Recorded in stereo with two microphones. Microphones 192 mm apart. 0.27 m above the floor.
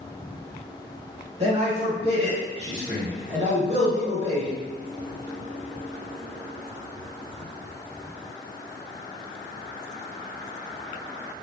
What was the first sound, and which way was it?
A man speaking, 35° right (ahead or behind).